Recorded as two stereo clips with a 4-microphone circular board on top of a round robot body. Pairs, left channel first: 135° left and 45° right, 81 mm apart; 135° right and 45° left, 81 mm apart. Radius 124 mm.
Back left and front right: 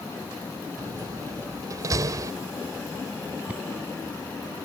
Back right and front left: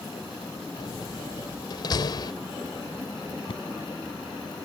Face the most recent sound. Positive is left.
turn(degrees=-125)